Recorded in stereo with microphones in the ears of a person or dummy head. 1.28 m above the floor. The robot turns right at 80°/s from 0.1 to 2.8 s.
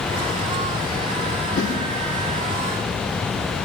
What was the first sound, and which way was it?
A whoosh, 40° left (ahead or behind).